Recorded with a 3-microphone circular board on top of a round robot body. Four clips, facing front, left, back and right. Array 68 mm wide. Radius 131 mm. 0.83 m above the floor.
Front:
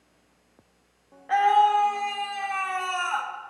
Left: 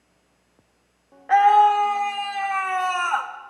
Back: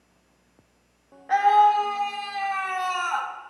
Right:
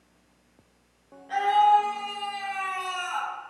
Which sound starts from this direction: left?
A scream, at 1.3 s.